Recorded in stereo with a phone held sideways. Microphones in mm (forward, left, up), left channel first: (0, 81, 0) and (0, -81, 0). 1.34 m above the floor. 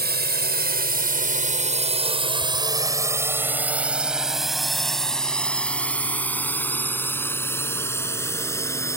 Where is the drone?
85° right; by 9.0 s 20° left (ahead or behind).